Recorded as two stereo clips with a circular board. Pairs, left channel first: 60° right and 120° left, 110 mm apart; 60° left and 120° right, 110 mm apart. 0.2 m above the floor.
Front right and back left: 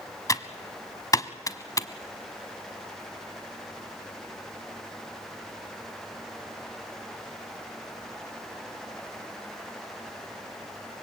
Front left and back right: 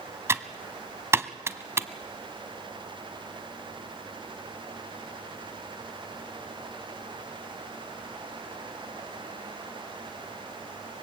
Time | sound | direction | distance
0.3 | typing on a keyboard | 80° right | 1.0 m